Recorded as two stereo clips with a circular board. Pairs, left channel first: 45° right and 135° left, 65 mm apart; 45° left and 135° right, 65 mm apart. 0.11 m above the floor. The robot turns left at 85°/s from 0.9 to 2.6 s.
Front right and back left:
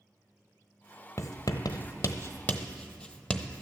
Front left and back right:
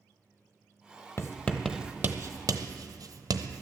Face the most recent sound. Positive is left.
turn(degrees=-120)